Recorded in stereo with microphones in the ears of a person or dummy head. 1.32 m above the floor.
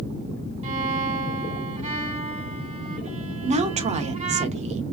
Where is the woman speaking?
40° right (ahead or behind), 1.0 m.